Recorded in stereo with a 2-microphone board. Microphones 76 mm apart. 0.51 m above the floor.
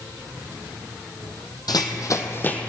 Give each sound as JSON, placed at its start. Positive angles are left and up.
{"t": 1.7, "sound": "running footsteps", "side_deg": 65, "distance_m": 1.0}